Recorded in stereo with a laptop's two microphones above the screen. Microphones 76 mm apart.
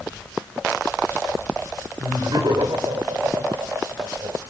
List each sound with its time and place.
2.0 s laughter: 65° right (ahead or behind), 4 m; by 4.4 s 80° right, 5 m